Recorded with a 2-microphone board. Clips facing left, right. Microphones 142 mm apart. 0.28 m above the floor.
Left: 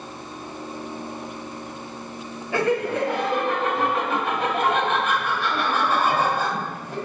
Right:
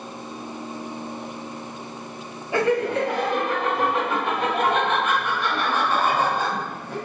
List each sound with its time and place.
2.5 s laughter: 20° right (ahead or behind), 1.4 m